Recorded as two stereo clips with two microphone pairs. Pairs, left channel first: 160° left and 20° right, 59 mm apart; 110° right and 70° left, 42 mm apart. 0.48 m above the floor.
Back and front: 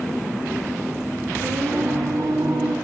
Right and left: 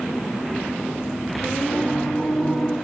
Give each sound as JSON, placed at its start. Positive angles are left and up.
{"t": 1.4, "sound": "singing", "azimuth_deg": -20, "distance_m": 4.5}